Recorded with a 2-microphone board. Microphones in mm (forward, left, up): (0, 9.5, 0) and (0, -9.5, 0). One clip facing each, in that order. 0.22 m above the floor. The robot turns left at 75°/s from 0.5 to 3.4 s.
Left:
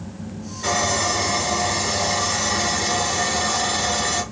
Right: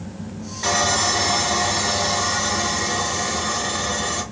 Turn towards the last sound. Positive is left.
turn(degrees=75)